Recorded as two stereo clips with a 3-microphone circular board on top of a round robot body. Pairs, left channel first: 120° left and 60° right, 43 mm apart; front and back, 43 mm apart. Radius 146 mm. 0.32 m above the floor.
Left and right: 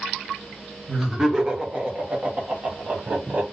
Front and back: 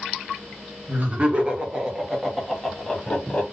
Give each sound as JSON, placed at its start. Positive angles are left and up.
{"t": 0.9, "sound": "laughter", "azimuth_deg": -140, "distance_m": 1.5}